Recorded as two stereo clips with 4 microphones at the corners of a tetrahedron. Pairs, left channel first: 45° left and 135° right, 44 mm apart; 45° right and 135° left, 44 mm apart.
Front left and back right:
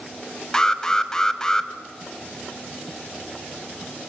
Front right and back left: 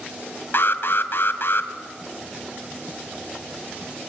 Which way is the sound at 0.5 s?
30° right.